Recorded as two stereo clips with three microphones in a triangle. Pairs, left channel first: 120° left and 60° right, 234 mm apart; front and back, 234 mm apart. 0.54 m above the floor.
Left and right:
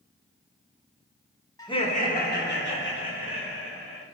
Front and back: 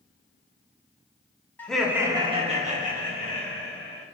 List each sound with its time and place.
1.6 s laughter: 70° left, 0.7 m; by 4.0 s 135° left, 2 m